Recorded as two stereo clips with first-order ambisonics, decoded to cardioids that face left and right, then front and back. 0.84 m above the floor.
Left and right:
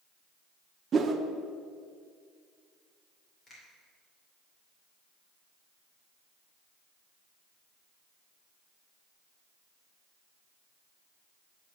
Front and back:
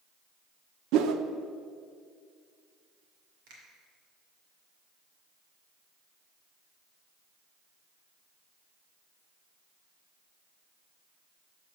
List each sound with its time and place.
0.9 s a whoosh: 155° right, 0.5 m
3.5 s a finger snap: 165° left, 2.5 m